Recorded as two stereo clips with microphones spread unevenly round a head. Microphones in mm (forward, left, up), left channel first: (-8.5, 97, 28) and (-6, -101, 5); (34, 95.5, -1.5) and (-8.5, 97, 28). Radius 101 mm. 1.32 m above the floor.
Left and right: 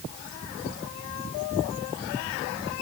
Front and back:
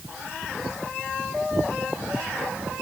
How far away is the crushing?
No crushing in this recording.